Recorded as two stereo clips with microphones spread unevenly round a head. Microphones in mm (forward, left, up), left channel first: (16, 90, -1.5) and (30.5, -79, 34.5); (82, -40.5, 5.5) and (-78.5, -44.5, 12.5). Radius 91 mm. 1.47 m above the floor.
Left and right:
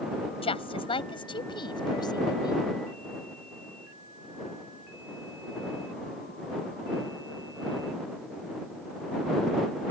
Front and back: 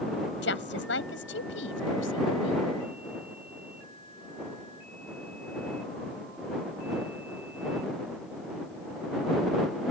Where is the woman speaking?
35° left; by 2.6 s 25° left.